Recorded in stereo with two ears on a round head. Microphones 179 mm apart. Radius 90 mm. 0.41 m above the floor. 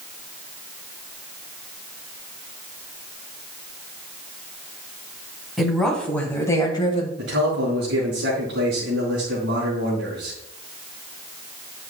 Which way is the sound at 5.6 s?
Centre (ahead or behind).